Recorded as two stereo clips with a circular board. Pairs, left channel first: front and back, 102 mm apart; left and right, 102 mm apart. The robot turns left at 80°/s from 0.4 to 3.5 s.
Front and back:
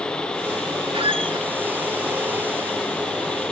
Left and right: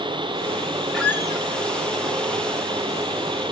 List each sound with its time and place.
0.9 s a squeak: 175° left, 1.8 m; by 1.5 s 135° left, 1.8 m